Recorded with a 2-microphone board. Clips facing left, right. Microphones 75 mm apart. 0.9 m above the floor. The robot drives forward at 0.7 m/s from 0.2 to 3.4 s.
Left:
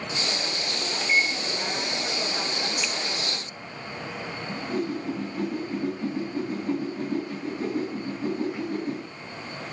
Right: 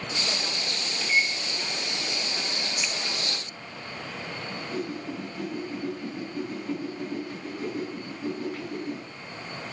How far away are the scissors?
About 1.3 m.